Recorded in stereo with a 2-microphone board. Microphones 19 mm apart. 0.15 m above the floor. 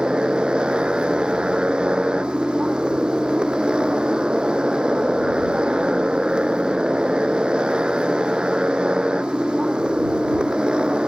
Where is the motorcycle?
65° right (ahead or behind).